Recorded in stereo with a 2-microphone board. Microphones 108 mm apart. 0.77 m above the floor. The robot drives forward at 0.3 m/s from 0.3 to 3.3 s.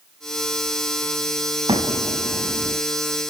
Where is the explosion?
60° right (ahead or behind), 5.5 m; by 2.8 s 65° right (ahead or behind), 5 m.